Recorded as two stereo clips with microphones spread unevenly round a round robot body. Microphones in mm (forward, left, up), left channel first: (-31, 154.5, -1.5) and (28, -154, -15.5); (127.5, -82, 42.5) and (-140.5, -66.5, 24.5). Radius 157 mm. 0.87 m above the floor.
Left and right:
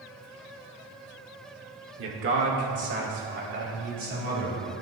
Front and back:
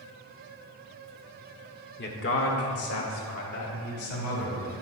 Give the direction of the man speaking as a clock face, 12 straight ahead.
2 o'clock.